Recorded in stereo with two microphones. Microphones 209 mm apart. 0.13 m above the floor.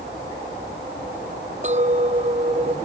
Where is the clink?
35° right (ahead or behind).